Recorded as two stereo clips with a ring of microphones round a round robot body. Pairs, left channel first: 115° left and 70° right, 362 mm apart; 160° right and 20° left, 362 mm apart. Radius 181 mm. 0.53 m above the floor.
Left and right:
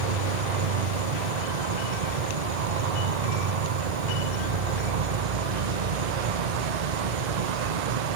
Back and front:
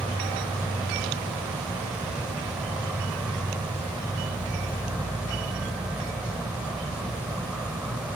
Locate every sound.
0.0 s an insect: 65° right